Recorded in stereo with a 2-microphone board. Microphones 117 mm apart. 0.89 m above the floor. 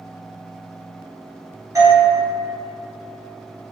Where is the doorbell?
30° right (ahead or behind), 1.0 m.